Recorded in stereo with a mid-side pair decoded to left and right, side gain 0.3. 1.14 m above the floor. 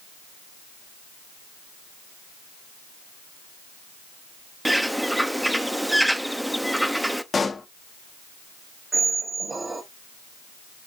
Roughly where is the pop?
Ahead left.